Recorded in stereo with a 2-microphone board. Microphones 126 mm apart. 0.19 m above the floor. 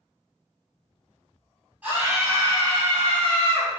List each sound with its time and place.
1.8 s a scream: 10° right (ahead or behind), 1.2 m; by 3.7 s 50° right (ahead or behind), 1.9 m